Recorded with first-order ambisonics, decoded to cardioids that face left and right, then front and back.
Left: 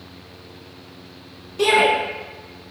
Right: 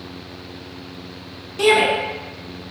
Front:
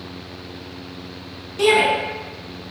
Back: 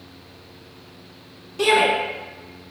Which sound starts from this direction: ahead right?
A shout, at 1.6 s.